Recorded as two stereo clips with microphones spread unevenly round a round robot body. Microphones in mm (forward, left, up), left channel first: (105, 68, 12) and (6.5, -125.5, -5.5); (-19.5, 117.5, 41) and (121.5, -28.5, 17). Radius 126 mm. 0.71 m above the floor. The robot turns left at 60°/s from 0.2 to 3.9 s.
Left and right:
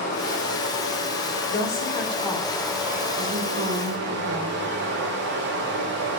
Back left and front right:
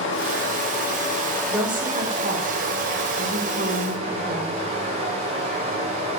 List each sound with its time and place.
0.0 s running water: 125° left, 1.5 m; by 6.2 s 100° right, 1.5 m
1.5 s a woman speaking: 35° left, 2 m; by 4.6 s 110° right, 2 m